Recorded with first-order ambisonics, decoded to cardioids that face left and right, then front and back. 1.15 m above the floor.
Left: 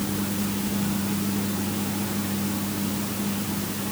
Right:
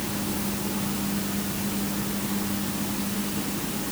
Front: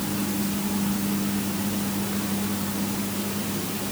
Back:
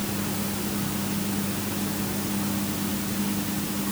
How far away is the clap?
I don't hear a clap.